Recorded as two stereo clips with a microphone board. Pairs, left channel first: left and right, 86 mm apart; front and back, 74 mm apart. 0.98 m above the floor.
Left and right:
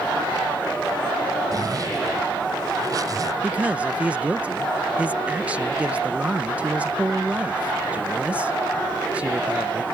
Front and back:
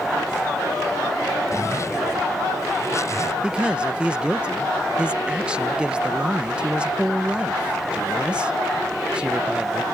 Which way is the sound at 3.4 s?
130° right.